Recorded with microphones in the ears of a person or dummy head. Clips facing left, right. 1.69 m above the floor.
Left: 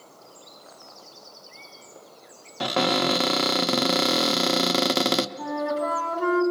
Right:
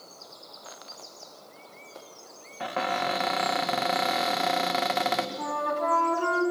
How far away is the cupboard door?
About 0.5 m.